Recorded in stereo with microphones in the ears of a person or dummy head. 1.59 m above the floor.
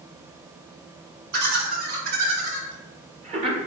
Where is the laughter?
55° right (ahead or behind), 3 m; by 3.6 s 35° right (ahead or behind), 2.5 m.